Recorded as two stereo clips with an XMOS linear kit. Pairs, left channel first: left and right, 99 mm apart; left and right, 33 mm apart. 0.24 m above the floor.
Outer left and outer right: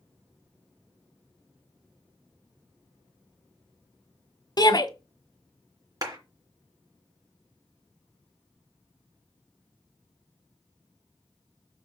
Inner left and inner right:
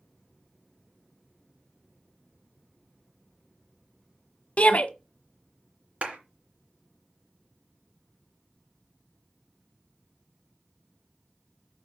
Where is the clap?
40° right (ahead or behind), 3 m.